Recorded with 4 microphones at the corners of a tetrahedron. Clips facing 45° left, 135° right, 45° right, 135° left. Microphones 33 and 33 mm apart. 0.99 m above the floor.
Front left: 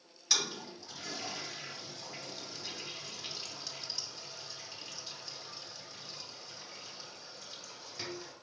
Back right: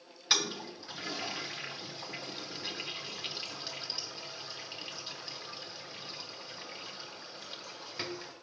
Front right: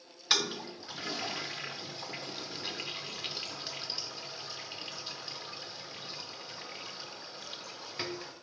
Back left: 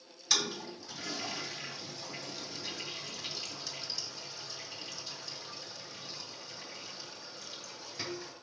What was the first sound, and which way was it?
A toilet flushing, 90° right.